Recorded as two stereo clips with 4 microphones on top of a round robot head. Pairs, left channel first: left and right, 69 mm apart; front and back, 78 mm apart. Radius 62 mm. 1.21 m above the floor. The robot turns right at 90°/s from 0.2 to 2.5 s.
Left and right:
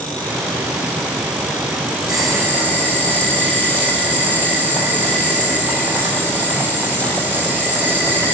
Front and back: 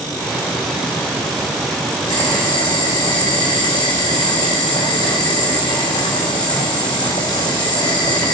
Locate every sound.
2.1 s boiling: 65° right, 3 m; by 8.3 s 30° right, 3 m